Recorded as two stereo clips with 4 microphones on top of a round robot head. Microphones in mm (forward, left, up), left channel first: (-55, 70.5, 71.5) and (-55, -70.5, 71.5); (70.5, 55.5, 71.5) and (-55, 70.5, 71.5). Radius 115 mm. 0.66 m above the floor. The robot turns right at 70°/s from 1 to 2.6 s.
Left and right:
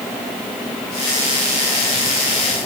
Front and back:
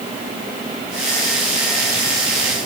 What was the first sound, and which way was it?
Only background noise.